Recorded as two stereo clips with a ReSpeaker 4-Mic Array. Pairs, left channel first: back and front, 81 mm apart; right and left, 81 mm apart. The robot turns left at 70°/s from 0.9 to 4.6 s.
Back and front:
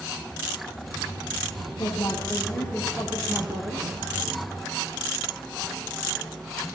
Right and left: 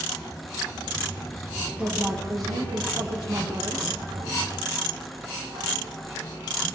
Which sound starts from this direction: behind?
A woman speaking, at 1.8 s.